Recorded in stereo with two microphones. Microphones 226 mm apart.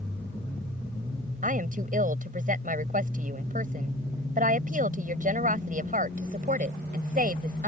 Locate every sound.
1.4 s a woman speaking: 40° right (ahead or behind)